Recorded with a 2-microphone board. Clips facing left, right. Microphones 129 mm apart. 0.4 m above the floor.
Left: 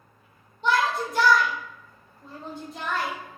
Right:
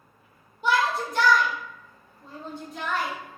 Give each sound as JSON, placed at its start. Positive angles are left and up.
{"t": 0.6, "sound": "a shout", "side_deg": -10, "distance_m": 0.8}